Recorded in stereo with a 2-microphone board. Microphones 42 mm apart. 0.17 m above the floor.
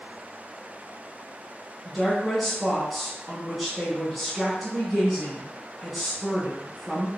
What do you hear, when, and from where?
1.9 s a woman speaking: centre (ahead or behind), 1.1 m